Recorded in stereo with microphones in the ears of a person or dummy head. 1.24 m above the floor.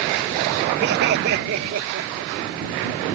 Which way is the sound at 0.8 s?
60° right (ahead or behind).